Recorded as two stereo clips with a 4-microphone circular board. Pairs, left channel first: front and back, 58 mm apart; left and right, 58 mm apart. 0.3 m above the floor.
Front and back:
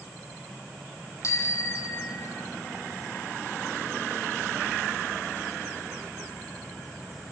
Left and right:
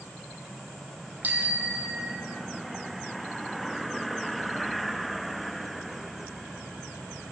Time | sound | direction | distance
1.2 | a bicycle bell | 30° right | 6.5 m